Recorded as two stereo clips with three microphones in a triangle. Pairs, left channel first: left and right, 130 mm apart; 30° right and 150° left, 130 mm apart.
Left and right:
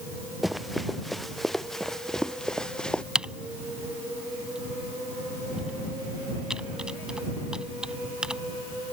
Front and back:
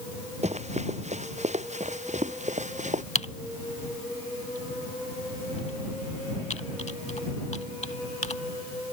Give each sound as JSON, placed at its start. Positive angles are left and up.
{"t": 0.4, "sound": "running footsteps", "azimuth_deg": 180}
{"t": 3.1, "sound": "typing on a keyboard", "azimuth_deg": -5}